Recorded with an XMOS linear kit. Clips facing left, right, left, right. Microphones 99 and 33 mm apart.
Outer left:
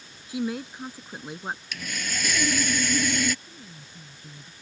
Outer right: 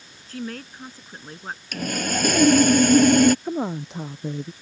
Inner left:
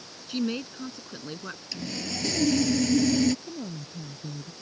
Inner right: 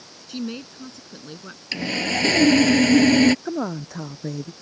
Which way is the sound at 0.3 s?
15° left (ahead or behind).